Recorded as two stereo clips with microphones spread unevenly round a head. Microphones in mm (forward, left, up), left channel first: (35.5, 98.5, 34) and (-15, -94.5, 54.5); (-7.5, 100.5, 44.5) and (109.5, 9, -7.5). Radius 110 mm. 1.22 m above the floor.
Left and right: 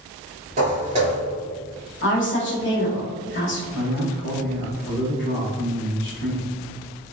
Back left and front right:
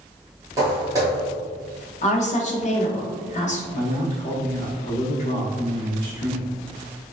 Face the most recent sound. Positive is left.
turn(degrees=115)